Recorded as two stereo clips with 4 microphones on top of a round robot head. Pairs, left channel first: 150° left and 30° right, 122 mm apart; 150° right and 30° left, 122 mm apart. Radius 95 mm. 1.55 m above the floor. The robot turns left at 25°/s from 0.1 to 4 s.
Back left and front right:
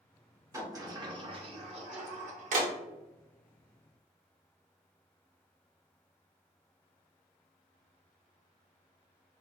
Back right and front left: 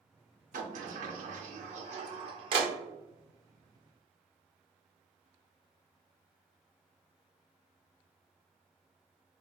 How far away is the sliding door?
About 0.9 m.